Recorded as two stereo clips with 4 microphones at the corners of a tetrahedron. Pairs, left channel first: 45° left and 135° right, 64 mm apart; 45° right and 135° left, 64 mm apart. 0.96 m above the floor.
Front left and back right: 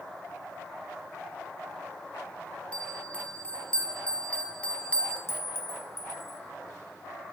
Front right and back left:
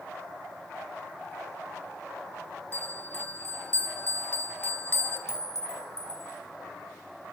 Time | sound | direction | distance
2.7 | a bell | 15° right | 0.7 m
5.3 | a clink | 5° right | 0.6 m